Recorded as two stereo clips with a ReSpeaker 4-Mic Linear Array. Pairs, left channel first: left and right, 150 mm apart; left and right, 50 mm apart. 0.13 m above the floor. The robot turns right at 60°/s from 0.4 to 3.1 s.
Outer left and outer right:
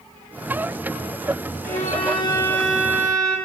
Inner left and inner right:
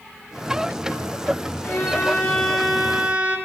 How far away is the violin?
About 2 m.